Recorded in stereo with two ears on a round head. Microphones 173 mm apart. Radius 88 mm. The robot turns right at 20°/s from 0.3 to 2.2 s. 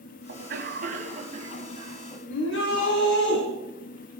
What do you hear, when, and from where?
0.3 s a cough: 55° right, 3 m; by 2.2 s 15° right, 3 m
2.3 s a shout: 75° left (ahead or behind), 5 m